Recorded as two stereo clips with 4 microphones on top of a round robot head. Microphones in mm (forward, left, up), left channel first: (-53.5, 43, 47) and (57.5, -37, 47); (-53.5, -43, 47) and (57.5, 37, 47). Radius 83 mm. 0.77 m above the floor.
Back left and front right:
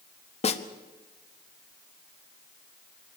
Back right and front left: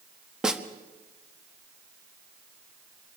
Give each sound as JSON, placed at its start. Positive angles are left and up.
{"t": 0.4, "sound": "a snare drum", "azimuth_deg": 120, "distance_m": 1.5}